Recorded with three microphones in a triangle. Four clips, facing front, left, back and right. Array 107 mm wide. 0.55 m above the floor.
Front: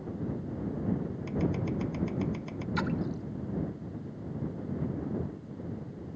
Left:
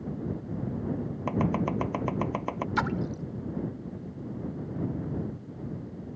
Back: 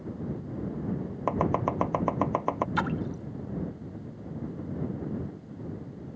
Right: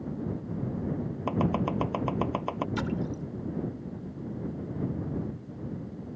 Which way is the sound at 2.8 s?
130° left.